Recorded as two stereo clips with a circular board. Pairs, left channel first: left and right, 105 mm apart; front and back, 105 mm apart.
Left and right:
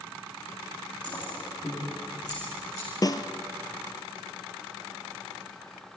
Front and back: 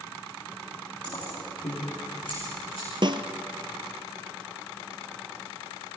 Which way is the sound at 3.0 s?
140° left.